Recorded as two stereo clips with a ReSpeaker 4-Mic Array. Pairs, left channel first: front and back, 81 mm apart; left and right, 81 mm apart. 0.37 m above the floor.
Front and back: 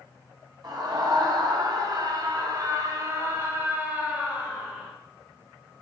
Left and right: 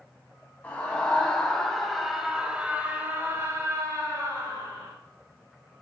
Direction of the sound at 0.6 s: 160° left.